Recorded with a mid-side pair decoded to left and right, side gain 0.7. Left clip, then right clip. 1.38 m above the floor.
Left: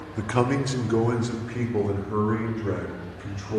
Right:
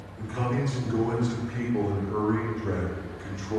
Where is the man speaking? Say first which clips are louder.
Left 6 dB; 65° left, 0.9 m; by 3.6 s 10° left, 3 m.